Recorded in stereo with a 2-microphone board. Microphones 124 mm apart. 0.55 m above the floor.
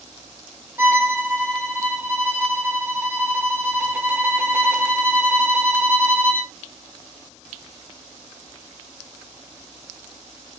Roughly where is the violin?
Centre.